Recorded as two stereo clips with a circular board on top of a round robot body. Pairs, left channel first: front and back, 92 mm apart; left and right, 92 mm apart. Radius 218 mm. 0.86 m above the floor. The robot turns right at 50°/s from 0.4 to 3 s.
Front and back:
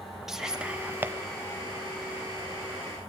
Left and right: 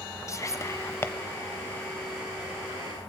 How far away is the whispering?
About 1.0 m.